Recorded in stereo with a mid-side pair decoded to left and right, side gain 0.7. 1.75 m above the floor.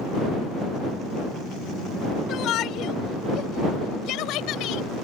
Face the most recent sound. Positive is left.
turn(degrees=60)